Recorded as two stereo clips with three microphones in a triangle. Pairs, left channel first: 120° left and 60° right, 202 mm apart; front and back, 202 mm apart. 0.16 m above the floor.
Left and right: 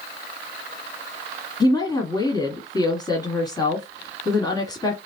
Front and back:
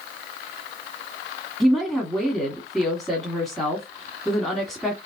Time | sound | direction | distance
1.6 | a woman speaking | 85° left | 1.4 m